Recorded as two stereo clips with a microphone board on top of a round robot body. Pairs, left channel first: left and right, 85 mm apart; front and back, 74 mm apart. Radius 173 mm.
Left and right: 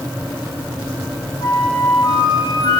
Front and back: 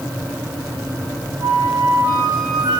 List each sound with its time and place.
1.4 s a flute: 130° left, 7.5 m